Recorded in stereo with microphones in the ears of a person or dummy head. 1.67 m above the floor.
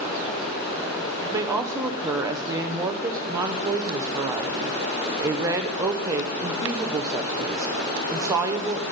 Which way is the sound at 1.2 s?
15° right (ahead or behind).